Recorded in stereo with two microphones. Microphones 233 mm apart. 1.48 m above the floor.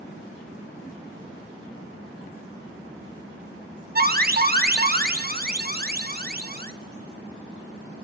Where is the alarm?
40° right (ahead or behind), 1.1 m.